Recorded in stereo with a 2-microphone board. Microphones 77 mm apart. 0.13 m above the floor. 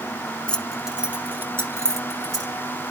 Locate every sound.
0.5 s keys jangling: 15° left (ahead or behind), 0.9 m; by 2.5 s 50° right (ahead or behind), 2 m